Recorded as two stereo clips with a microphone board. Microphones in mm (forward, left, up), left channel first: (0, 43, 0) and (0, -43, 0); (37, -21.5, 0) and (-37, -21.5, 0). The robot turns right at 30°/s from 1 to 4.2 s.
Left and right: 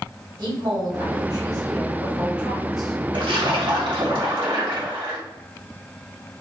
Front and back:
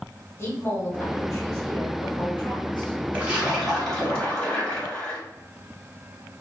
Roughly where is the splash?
Right.